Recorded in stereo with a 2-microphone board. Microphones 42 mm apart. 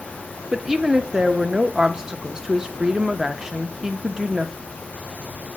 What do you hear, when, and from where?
0.5 s a woman speaking: 15° right (ahead or behind), 0.6 m